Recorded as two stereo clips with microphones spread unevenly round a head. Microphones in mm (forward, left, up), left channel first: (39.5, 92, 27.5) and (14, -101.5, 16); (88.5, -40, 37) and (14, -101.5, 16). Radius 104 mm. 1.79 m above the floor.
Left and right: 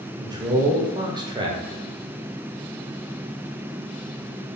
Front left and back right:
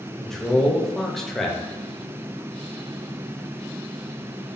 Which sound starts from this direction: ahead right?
A man speaking, at 0.2 s.